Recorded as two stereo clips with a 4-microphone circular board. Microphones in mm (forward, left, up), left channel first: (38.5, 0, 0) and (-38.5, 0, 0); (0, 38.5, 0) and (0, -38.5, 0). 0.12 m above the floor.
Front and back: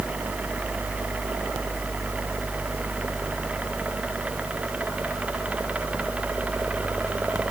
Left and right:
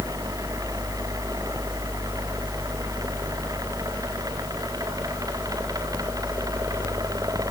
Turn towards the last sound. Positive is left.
No sound to turn to.